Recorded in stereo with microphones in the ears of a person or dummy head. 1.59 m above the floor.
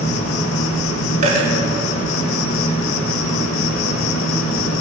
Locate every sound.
0.0 s an insect: 85° left, 1.7 m
1.2 s a dropped coin: 45° right (ahead or behind), 5 m